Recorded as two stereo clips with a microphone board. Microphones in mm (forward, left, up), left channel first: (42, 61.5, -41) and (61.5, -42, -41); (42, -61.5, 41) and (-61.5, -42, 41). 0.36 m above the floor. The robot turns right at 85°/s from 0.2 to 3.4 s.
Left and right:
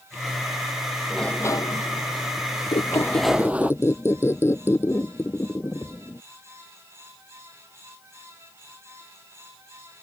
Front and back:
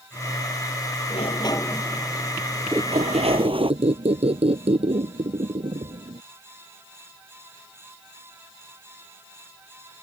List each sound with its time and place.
1.1 s a sliding door: 10° left; by 3.7 s 155° right
2.7 s a squeak: 105° left; by 6.2 s 165° left